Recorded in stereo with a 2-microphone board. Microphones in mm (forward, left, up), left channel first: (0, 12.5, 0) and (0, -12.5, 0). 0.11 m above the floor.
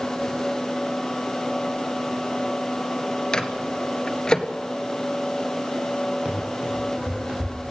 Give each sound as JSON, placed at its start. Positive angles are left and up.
{"t": 3.3, "sound": "a microwave", "side_deg": 25, "distance_m": 1.4}
{"t": 6.2, "sound": "running footsteps", "side_deg": -50, "distance_m": 8.0}